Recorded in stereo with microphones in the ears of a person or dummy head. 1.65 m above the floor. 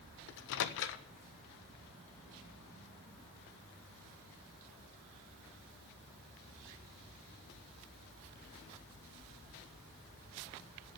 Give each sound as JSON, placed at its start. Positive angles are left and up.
{"t": 0.3, "sound": "a microwave", "side_deg": 55, "distance_m": 0.6}